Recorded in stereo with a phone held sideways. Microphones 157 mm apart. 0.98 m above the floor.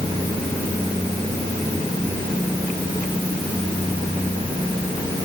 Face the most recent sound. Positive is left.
No sound to turn to.